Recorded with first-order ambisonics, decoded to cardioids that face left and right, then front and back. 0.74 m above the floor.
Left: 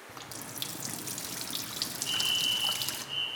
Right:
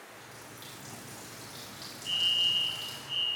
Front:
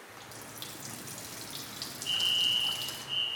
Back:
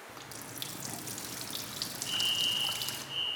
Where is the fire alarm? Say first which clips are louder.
Right 2 dB, front 3 dB; 35° right, 1.3 m.